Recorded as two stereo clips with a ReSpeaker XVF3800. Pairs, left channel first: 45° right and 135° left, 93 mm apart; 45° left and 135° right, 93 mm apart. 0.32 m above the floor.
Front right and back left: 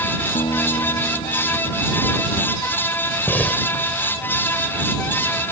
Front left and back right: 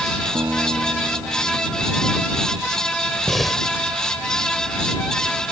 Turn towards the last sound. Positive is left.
turn(degrees=-35)